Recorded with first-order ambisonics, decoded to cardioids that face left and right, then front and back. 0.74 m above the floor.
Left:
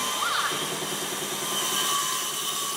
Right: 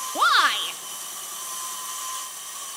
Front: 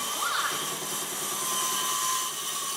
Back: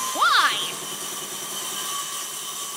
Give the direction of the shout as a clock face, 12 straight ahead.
5 o'clock.